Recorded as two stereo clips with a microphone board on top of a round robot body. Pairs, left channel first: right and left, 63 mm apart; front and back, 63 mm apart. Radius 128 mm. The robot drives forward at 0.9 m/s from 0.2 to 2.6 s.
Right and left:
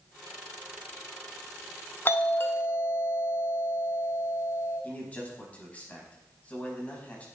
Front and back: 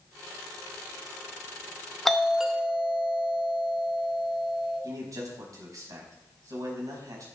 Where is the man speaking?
155° right, 4.5 m.